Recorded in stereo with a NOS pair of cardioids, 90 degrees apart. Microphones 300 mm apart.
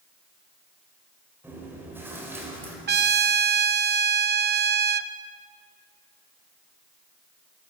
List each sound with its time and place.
1.4 s chewing: 5° right, 7.5 m
2.9 s a trumpet: 35° right, 1.0 m